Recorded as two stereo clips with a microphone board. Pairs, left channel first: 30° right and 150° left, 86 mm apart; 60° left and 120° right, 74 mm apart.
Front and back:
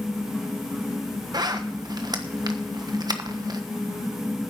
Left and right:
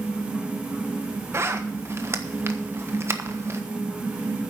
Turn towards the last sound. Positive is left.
turn(degrees=-175)